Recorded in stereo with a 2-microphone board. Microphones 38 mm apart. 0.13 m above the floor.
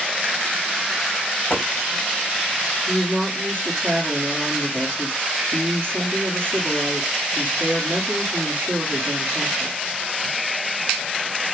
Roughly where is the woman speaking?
Right.